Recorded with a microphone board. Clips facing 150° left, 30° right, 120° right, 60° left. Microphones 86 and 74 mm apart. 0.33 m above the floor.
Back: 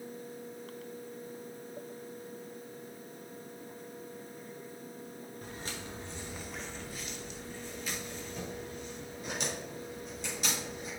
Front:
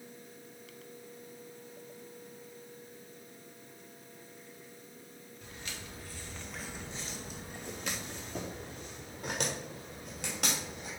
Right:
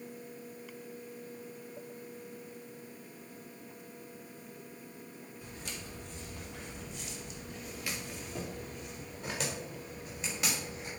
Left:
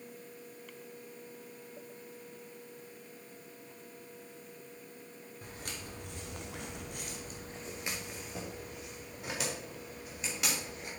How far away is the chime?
I don't hear a chime.